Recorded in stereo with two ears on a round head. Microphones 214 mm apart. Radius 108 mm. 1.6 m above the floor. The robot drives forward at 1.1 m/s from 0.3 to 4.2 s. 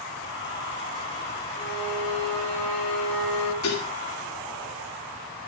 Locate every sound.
1.6 s a violin: 15° left (ahead or behind), 4 m; by 3.5 s 10° left (ahead or behind), 6 m
3.6 s dishes clattering: 65° left (ahead or behind), 3 m; by 3.9 s 70° left (ahead or behind), 3 m